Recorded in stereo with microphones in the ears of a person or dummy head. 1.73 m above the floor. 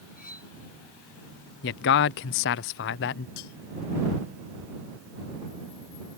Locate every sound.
0.2 s cutlery clinking: 50° left (ahead or behind)
1.6 s a man speaking: 60° left (ahead or behind)
3.4 s cutlery clinking: 80° left